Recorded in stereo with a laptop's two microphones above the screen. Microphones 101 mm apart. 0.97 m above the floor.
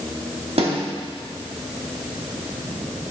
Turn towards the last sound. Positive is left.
turn(degrees=-70)  # may be behind; listen again after turning